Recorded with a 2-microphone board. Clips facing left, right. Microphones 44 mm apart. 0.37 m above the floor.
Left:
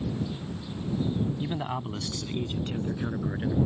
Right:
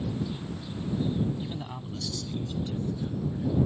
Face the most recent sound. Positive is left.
turn(degrees=75)  # may be behind; listen again after turning